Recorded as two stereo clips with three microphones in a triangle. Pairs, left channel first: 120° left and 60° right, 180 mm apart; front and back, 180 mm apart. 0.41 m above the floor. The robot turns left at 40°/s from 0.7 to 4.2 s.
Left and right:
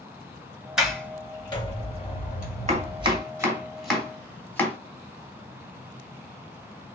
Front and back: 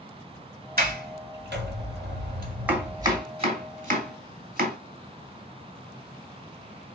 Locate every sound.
0.8 s a sliding door: 145° right, 1.4 m; by 3.2 s 115° left, 1.4 m
2.7 s chopping: 100° right, 2 m; by 4.8 s 160° right, 2 m